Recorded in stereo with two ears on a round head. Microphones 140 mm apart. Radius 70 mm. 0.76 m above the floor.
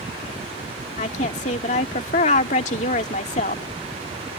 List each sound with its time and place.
1.0 s a woman speaking: 45° left (ahead or behind)